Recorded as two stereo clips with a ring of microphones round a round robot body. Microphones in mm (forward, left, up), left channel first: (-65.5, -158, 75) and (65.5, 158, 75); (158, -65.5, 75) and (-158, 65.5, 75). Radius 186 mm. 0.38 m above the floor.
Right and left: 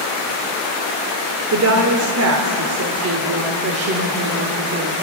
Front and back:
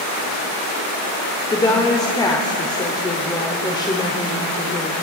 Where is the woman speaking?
50° left, 1.3 m.